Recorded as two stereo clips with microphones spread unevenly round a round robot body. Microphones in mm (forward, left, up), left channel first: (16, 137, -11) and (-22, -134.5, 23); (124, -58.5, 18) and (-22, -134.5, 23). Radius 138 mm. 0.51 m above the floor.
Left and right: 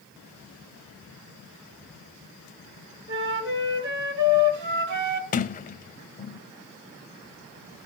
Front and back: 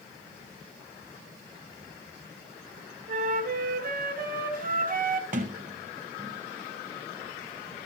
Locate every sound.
3.1 s a flute: 140° right, 1.8 m
5.3 s a sliding door: 145° left, 0.5 m